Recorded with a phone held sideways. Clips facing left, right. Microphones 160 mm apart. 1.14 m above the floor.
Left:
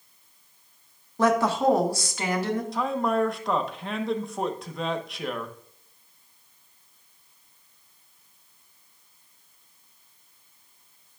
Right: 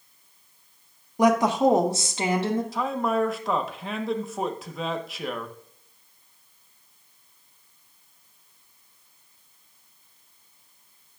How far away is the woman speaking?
About 1.4 m.